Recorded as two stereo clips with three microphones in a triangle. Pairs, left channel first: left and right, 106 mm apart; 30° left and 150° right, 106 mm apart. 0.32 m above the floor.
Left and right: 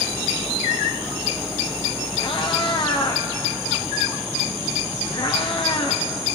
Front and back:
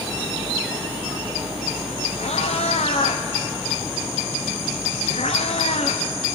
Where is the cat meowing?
45° left, 3 m.